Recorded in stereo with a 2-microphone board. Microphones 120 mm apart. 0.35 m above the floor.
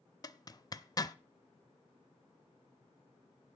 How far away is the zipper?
About 0.6 m.